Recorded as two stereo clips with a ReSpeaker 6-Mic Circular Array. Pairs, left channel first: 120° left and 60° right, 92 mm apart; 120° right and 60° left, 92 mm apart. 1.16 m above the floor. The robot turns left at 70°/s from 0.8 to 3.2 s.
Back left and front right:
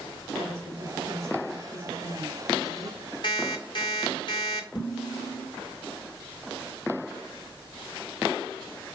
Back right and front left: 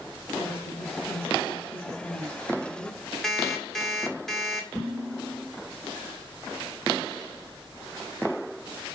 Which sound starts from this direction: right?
A woman speaking, at 0.3 s.